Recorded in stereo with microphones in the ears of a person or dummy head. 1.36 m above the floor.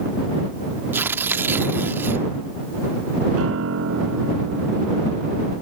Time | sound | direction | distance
0.9 | tearing paper | 10° right (ahead or behind) | ?
3.4 | a piano | 75° right (ahead or behind) | ?